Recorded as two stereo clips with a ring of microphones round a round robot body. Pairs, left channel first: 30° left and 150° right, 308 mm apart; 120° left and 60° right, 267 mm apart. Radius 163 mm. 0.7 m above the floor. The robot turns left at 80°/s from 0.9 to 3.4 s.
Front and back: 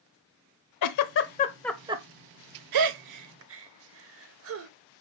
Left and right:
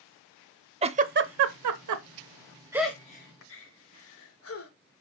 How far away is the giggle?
About 0.6 m.